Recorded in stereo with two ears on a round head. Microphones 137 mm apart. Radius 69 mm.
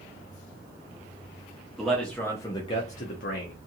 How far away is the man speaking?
About 0.8 m.